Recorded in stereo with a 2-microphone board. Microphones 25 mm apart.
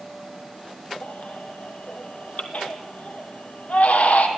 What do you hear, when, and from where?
1.0 s a baby crying: 75° left (ahead or behind), 2.5 m